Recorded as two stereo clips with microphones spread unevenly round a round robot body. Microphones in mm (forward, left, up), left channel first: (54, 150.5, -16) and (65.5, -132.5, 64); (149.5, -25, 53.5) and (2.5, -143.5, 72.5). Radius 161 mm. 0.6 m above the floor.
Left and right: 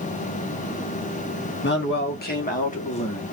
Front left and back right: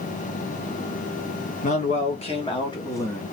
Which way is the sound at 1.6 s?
70° left.